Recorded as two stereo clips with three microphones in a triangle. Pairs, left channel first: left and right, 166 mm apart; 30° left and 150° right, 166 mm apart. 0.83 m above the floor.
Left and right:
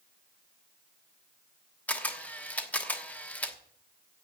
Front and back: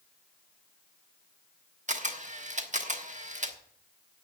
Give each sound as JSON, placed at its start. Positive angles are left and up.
{"t": 1.9, "sound": "a camera shutter", "azimuth_deg": 170, "distance_m": 1.2}